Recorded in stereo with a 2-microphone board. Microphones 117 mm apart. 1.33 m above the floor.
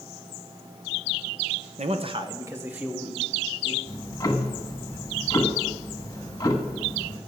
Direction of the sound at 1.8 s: 70° right (ahead or behind).